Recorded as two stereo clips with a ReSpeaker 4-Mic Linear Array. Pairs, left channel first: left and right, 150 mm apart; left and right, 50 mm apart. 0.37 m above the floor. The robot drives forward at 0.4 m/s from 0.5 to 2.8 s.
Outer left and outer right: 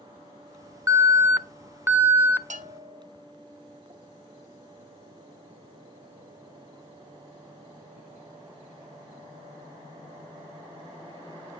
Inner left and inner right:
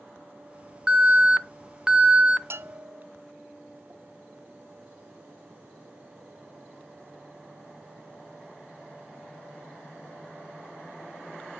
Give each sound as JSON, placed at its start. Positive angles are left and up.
{"t": 0.9, "sound": "an alarm", "side_deg": -20, "distance_m": 0.7}
{"t": 2.5, "sound": "a bell", "side_deg": -55, "distance_m": 0.9}